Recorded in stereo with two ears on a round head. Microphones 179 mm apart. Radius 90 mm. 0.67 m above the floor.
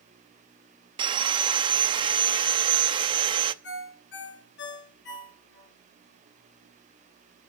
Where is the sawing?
25° right (ahead or behind), 0.6 m.